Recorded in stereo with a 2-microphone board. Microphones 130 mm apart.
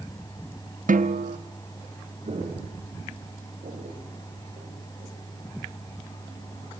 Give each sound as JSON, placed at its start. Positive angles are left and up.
{"t": 0.9, "sound": "a snare drum", "side_deg": -75, "distance_m": 1.1}
{"t": 2.2, "sound": "footsteps", "side_deg": -60, "distance_m": 8.5}